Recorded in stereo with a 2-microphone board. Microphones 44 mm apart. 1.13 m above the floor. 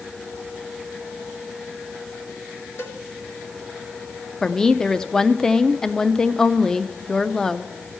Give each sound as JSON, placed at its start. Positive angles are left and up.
{"t": 2.8, "sound": "a cowbell", "side_deg": 75, "distance_m": 1.9}
{"t": 4.4, "sound": "a woman speaking", "side_deg": 15, "distance_m": 0.6}